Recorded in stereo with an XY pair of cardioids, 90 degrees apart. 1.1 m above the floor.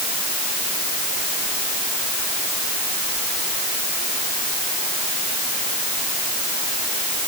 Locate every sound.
Only background noise.